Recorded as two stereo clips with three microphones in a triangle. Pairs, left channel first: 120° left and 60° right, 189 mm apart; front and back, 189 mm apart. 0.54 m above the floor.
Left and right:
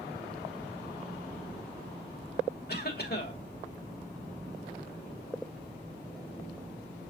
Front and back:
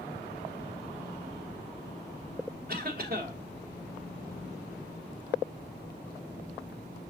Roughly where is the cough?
Behind left.